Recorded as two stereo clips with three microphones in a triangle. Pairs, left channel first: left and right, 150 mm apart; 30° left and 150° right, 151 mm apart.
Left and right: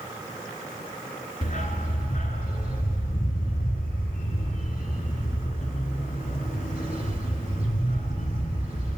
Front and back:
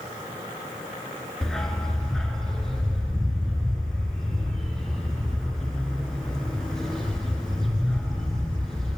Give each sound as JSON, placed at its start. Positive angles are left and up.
{"t": 1.4, "sound": "a dog barking", "azimuth_deg": 115, "distance_m": 0.7}